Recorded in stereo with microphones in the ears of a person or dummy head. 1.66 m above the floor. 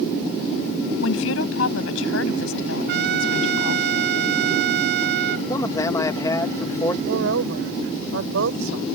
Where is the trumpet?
60° right (ahead or behind).